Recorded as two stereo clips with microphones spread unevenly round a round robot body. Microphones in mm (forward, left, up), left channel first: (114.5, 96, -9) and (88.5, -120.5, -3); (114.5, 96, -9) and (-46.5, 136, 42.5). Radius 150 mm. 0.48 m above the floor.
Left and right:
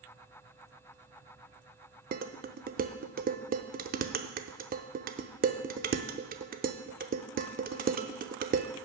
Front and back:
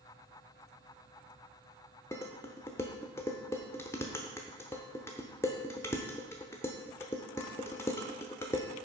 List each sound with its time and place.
2.1 s dishes clattering: 65° right, 0.7 m